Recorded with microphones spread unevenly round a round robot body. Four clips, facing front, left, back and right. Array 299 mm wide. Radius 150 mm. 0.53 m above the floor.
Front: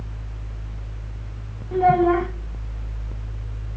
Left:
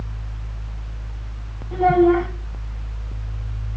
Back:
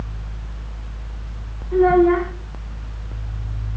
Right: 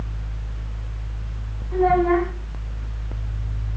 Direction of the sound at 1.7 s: 25° left.